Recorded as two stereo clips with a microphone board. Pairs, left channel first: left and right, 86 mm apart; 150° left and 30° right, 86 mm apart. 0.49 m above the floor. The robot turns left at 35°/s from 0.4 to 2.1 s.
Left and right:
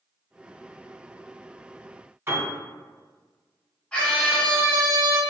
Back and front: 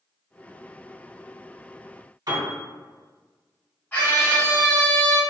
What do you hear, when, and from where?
2.3 s a piano: 40° right, 1.7 m
3.9 s a scream: 135° left, 0.7 m